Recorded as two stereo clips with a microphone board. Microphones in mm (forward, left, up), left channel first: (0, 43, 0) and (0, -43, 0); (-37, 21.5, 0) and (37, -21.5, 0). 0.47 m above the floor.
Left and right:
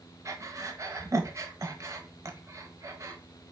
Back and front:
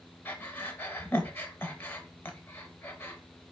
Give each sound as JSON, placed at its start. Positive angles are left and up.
{"t": 0.2, "sound": "breathing", "azimuth_deg": -145, "distance_m": 0.7}